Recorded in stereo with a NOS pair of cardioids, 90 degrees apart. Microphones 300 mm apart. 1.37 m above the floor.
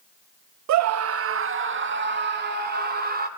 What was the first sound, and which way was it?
A scream, 65° right.